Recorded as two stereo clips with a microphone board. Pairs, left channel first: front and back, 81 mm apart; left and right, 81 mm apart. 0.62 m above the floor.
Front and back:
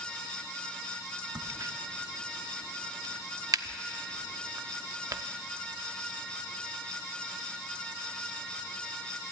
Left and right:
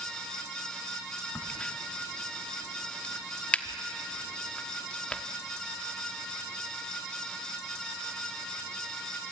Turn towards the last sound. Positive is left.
turn(degrees=160)